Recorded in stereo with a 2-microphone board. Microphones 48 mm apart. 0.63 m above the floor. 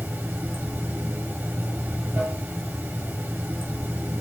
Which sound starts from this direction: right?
Running water, at 0.0 s.